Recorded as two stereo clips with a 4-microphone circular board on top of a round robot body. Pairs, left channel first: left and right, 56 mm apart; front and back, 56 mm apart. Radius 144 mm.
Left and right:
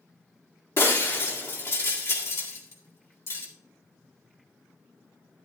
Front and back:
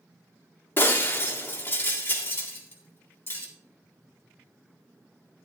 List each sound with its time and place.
0.8 s breaking glass: 50° left, 1.9 m